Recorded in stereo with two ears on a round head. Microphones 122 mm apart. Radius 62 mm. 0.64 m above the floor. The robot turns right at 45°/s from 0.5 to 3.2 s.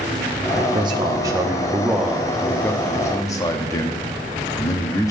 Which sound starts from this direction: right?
A man speaking, at 0.6 s.